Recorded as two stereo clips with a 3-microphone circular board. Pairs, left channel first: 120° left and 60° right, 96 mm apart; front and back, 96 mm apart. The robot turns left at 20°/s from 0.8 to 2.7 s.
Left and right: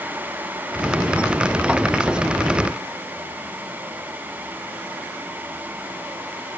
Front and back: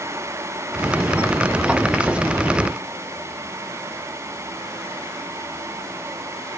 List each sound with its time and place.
Only background noise.